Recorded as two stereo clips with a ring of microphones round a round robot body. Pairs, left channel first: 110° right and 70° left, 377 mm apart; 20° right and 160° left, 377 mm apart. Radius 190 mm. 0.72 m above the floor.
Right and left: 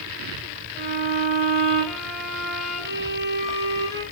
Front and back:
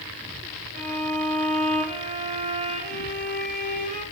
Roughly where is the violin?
Behind right.